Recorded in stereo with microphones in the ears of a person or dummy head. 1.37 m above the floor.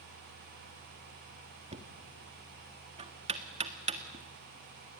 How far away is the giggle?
No giggle in this recording.